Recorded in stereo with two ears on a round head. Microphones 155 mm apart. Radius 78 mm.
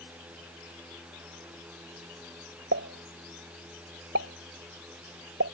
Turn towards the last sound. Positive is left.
turn(degrees=-75)  # may be behind; listen again after turning